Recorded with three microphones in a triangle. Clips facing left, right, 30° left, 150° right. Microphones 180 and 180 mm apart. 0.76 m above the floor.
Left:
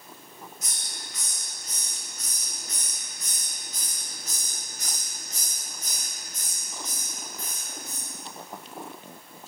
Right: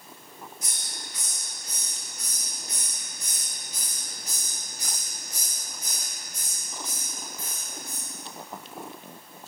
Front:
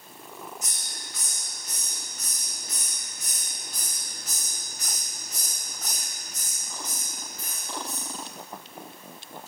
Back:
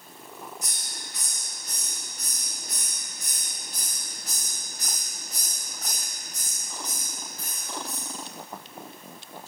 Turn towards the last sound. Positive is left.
turn(degrees=-125)